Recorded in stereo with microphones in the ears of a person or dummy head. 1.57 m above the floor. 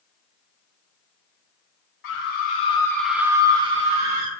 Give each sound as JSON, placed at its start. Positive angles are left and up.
{"t": 2.0, "sound": "a scream", "side_deg": 70, "distance_m": 1.0}